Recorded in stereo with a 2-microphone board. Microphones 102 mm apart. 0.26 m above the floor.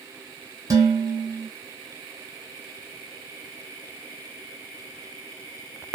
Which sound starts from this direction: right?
Dishes clattering, at 0.7 s.